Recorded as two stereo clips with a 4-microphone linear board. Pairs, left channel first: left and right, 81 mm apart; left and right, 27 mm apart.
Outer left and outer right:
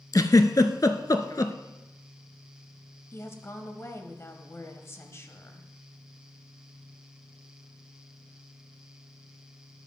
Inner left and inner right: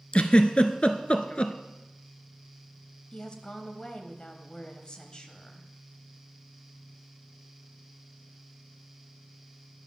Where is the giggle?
50° left (ahead or behind), 0.6 m.